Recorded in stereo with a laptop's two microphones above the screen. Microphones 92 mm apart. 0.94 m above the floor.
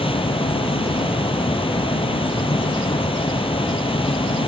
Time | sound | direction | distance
0.0 | a fan | 75° left (ahead or behind) | ?